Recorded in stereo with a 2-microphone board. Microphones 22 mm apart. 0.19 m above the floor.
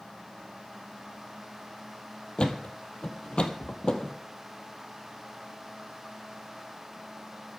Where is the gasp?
No gasp in this recording.